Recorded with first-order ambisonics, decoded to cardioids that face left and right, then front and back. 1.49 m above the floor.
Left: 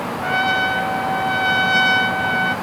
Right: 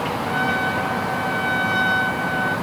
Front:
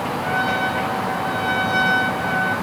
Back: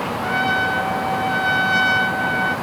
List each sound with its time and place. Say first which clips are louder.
0.2 s a trumpet: left 5 dB, back 2 dB; 105° left, 1.9 m